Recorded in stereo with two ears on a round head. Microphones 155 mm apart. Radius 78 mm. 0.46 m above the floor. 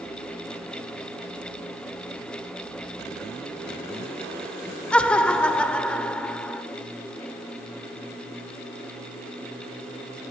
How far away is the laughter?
About 1.1 m.